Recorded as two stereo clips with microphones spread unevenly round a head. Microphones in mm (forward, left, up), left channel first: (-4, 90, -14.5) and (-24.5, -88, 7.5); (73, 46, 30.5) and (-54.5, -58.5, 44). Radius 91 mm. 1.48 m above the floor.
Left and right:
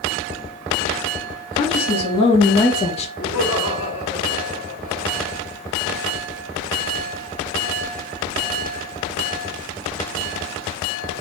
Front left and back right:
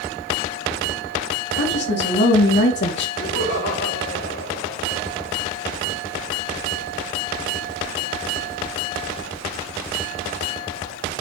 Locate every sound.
1.5 s a woman speaking: 20° left, 3 m; by 3.1 s 25° left, 1.6 m
3.2 s laughter: 55° left, 4 m